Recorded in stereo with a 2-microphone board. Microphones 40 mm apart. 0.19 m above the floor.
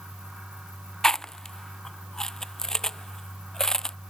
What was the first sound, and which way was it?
Chewing, 15° left (ahead or behind).